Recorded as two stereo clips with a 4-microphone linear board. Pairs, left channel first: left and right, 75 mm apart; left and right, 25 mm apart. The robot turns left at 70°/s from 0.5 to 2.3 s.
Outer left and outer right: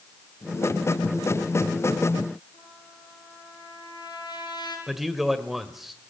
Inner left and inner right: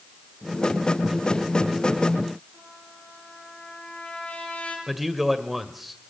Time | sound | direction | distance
2.5 | a trumpet | 85° left | 6 m
4.9 | a man speaking | 5° right (ahead or behind) | 1.7 m